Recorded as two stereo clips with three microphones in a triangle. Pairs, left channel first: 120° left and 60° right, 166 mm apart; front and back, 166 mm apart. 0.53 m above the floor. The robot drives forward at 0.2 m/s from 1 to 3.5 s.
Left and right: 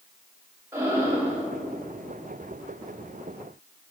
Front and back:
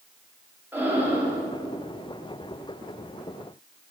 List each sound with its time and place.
0.7 s breathing: 115° right, 1.0 m; by 1.4 s 120° right, 1.0 m